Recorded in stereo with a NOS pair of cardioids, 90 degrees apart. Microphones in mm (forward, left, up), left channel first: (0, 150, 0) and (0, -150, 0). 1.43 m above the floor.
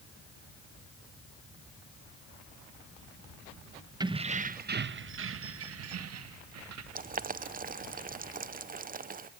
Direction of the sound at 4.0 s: 15° right.